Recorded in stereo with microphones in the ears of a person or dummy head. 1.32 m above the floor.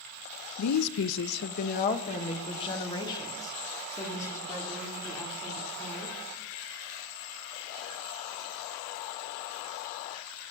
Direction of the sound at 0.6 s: 85° left.